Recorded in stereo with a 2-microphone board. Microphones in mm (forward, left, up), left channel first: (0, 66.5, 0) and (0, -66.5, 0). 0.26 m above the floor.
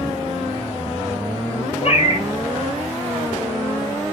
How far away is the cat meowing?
About 0.8 m.